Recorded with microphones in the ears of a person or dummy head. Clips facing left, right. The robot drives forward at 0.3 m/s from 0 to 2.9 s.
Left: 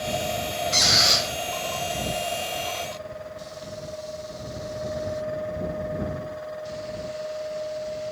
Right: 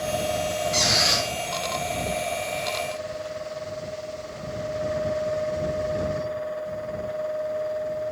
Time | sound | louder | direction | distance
0.7 | a squeak | right 1 dB | 55° left (ahead or behind) | 1.3 m